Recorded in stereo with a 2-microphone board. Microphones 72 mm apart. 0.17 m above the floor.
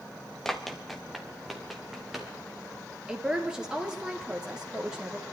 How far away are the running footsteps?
About 1.6 m.